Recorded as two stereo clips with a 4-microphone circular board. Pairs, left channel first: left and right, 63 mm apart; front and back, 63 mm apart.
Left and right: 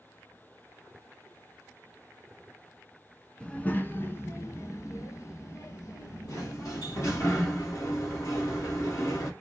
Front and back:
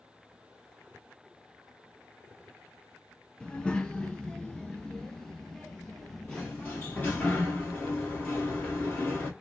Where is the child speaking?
45° left, 0.7 m; by 7.3 s 80° left, 2.5 m.